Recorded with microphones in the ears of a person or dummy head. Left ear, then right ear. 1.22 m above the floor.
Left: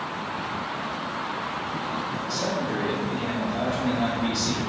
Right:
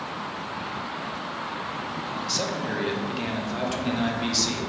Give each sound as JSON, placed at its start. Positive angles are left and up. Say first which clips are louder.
{"t": 2.2, "sound": "a man speaking", "louder": "right 1 dB", "side_deg": -55, "distance_m": 0.9}